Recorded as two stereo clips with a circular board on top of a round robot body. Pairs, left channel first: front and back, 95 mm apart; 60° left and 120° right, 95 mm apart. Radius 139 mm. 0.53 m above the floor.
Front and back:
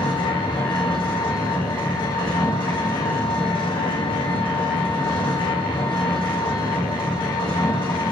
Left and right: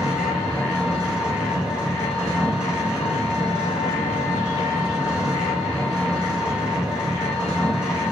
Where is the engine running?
40° right, 1.4 m.